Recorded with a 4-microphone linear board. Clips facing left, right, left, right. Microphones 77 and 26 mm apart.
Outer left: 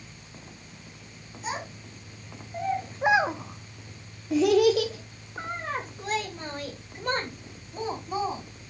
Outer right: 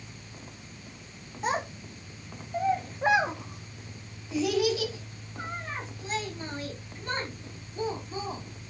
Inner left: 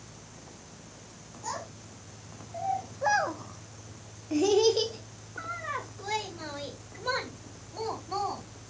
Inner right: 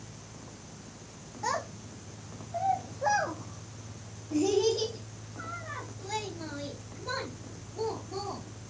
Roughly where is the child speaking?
Right.